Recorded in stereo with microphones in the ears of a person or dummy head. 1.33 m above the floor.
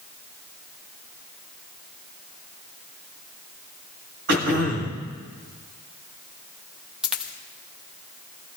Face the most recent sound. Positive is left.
turn(degrees=-5)  # may be behind; listen again after turning